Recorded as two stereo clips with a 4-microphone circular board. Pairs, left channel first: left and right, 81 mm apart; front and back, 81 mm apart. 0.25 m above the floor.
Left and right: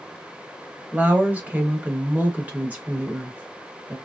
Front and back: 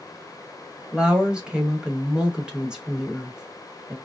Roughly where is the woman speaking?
Behind right.